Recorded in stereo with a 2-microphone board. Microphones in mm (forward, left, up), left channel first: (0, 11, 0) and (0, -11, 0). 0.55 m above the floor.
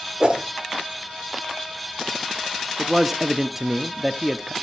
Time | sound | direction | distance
0.2 | a whoosh | 35° right (ahead or behind) | 1.6 m
2.8 | a man speaking | 15° right (ahead or behind) | 0.6 m